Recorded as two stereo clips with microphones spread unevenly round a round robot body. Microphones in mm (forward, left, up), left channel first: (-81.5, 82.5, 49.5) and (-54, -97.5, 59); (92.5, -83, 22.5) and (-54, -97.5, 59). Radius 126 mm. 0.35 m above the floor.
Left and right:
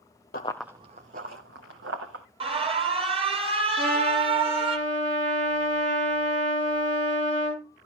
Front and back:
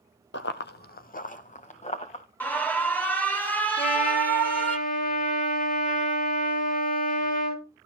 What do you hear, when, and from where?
0.3 s running footsteps: 45° left, 0.6 m; by 2.2 s 40° right, 3 m
2.4 s an alarm: 45° right, 2.5 m
3.8 s a trumpet: 10° right, 6 m